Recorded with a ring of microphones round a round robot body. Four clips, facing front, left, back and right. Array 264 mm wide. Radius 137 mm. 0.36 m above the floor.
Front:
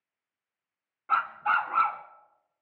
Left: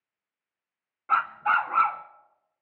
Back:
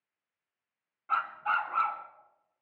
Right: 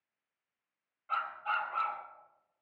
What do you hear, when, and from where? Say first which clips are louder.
1.1 s a dog barking: left 10 dB, front 4 dB; 65° left, 1.1 m